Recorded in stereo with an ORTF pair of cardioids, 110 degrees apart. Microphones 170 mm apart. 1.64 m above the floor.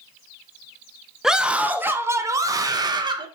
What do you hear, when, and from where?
1.2 s a scream: 5° right, 1.7 m; by 3.3 s 30° right, 2.5 m